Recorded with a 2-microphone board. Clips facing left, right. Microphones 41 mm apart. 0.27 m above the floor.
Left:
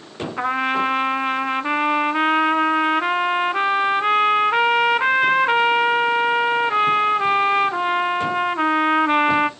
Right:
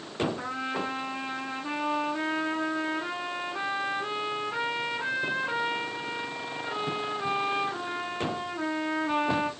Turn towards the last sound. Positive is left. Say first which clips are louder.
# left 11 dB
turn(degrees=75)  # may be behind; listen again after turning